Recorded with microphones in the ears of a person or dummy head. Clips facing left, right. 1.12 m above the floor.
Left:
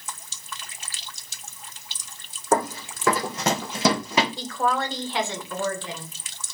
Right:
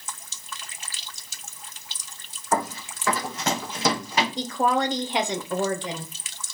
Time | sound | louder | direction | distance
2.5 | running footsteps | left 3 dB | 35° left (ahead or behind) | 2.0 m
4.4 | a woman speaking | right 2 dB | 15° right (ahead or behind) | 0.6 m